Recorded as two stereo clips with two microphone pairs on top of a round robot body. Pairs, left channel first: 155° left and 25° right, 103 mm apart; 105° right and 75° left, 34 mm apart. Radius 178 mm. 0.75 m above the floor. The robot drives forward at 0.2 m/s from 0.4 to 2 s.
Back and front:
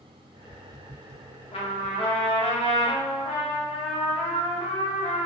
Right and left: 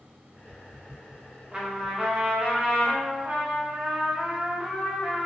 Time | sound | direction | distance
1.5 | a trumpet | 135° left | 0.9 m